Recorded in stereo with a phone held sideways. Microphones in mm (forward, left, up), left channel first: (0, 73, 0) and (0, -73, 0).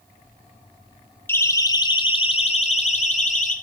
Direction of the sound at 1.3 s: 15° left (ahead or behind).